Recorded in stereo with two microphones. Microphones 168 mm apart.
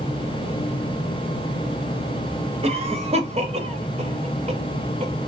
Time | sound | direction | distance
2.6 | a cough | 35° right (ahead or behind) | 1.2 m